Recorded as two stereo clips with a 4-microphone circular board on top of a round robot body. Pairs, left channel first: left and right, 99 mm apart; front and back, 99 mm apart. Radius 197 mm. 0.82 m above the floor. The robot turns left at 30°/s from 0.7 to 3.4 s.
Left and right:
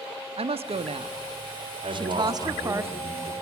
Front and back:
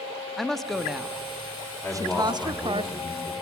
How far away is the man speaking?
About 5 m.